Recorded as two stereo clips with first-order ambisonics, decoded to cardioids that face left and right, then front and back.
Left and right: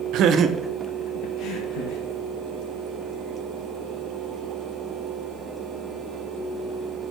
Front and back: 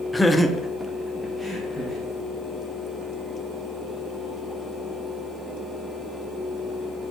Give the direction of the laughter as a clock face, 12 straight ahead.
3 o'clock.